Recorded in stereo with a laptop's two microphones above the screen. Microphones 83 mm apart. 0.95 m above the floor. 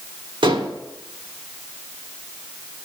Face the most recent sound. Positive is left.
turn(degrees=-75)  # may be behind; listen again after turning